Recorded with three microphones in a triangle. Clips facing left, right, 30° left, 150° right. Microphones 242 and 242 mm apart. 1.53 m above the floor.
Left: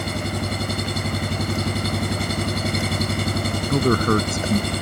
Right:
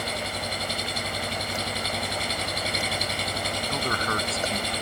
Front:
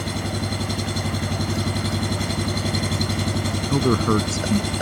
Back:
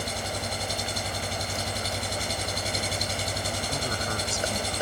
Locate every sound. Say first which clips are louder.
0.0 s an engine running: left 7 dB, front 7 dB; 50° left
3.7 s a man speaking: left 14 dB, front 19 dB; 50° left